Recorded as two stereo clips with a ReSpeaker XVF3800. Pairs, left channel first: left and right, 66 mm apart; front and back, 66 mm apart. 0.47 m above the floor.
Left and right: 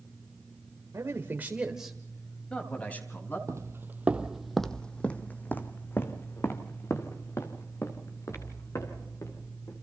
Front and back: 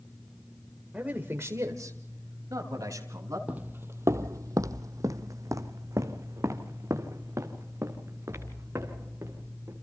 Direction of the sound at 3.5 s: 115° right.